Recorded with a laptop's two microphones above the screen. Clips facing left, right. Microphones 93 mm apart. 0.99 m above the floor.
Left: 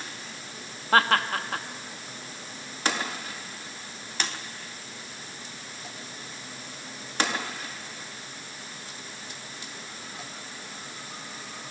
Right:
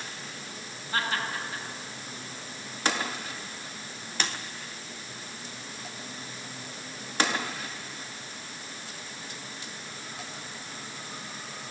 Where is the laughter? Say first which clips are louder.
Left 9 dB; 70° left (ahead or behind), 1.7 m.